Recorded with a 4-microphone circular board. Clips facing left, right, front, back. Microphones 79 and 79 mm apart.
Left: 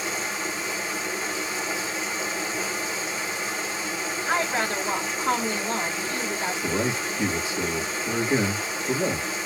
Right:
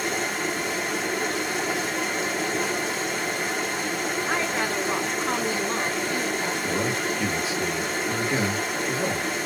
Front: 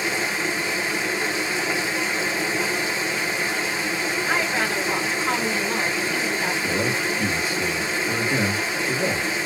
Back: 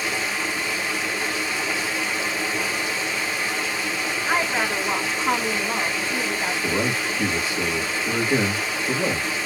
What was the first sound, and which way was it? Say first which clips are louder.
Running water: right 3 dB, front 1 dB; 70° right.